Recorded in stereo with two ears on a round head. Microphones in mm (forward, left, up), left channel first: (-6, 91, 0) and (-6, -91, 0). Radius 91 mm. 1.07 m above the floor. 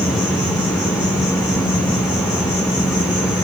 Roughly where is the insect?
Centre.